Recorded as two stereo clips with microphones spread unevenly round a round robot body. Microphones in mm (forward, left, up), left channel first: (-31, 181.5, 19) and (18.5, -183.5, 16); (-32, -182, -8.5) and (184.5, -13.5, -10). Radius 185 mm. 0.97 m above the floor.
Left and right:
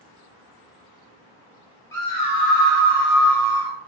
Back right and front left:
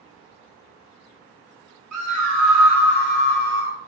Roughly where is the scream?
Ahead.